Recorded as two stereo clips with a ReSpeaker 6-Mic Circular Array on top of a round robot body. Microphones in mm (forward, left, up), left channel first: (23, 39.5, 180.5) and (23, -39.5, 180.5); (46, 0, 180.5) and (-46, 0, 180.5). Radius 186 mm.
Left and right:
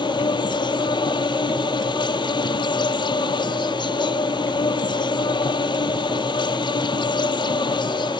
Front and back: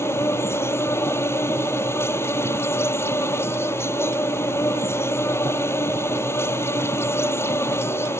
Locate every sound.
0.0 s an insect: 65° left